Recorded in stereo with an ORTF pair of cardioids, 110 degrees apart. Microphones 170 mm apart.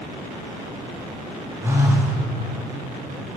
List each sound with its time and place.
1.6 s a phone buzzing: 15° right, 2 m